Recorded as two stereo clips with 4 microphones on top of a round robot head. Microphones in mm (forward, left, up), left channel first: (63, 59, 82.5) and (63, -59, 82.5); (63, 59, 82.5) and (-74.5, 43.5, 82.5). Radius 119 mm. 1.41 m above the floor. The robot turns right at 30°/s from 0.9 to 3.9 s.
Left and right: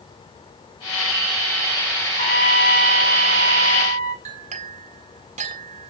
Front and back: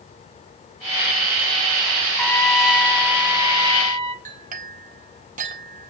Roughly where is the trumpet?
Left.